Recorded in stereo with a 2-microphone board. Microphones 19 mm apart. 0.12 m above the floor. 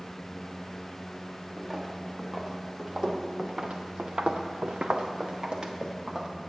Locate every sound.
1.6 s footsteps: 20° right (ahead or behind), 1.8 m; by 6.3 s 40° right (ahead or behind), 1.4 m